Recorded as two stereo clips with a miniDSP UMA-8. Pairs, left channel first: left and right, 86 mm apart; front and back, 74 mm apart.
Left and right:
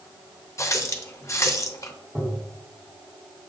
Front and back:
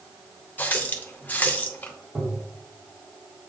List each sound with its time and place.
0.6 s a running tap: 55° left, 0.6 m
2.1 s tapping: 155° right, 1.2 m